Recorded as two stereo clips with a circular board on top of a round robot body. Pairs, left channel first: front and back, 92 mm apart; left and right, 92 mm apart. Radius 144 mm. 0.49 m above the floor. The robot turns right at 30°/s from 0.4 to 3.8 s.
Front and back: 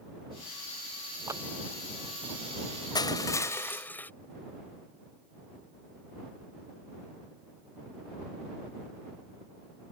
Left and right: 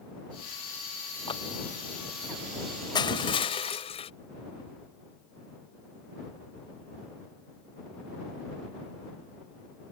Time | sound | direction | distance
1.3 | a clap | 120° left | ?
3.0 | crushing | 45° left | ?